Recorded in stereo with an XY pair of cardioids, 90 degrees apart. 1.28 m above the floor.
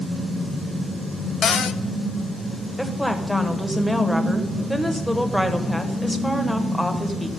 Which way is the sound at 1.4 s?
65° left.